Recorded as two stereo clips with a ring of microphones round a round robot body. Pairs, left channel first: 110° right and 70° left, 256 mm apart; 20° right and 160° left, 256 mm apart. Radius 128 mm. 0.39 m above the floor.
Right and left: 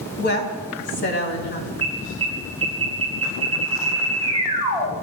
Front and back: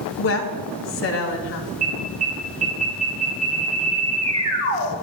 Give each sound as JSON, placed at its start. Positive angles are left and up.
{"t": 0.2, "sound": "a woman speaking", "azimuth_deg": -65, "distance_m": 2.5}
{"t": 1.8, "sound": "an alarm", "azimuth_deg": 135, "distance_m": 5.0}